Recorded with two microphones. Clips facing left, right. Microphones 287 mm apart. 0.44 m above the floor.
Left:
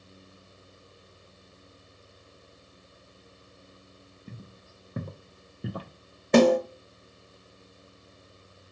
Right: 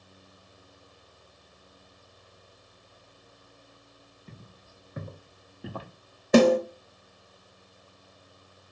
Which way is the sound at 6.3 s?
5° right (ahead or behind).